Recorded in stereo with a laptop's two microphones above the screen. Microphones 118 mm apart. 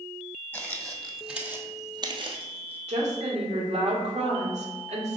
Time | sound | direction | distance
0.5 | footsteps | 15° left (ahead or behind) | 1.9 m
2.9 | a woman speaking | 70° right (ahead or behind) | 2.5 m